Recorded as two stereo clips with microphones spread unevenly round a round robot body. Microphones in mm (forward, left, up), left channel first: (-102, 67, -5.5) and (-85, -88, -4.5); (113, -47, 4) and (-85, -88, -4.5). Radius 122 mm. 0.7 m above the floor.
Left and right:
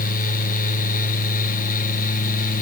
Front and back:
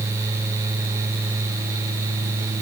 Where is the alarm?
No alarm in this recording.